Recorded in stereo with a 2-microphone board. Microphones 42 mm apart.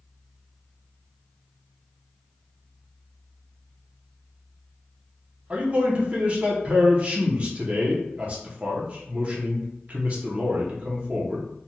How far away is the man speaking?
About 0.7 m.